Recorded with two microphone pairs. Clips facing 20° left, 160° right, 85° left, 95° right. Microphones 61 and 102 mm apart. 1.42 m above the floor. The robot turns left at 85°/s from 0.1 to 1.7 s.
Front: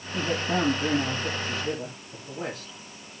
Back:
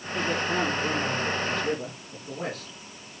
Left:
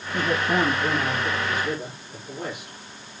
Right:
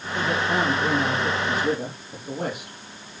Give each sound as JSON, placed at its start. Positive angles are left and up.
{"t": 0.1, "sound": "a man speaking", "azimuth_deg": 70, "distance_m": 3.5}